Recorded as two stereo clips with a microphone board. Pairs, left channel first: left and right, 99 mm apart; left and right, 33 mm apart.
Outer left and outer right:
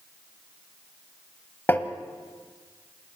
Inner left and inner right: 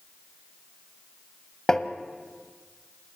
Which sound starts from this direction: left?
Tapping, at 1.7 s.